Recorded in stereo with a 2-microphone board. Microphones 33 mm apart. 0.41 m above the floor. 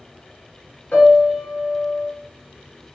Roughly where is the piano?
Left.